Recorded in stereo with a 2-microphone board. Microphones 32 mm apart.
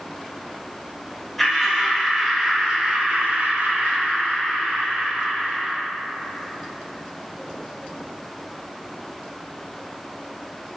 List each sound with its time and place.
1.4 s laughter: 5° left (ahead or behind), 1.8 m; by 5.8 s 55° right (ahead or behind), 2 m